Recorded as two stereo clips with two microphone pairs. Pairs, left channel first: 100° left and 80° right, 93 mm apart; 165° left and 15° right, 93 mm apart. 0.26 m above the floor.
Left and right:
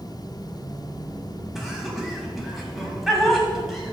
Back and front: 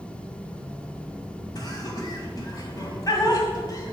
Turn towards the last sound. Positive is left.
turn(degrees=-170)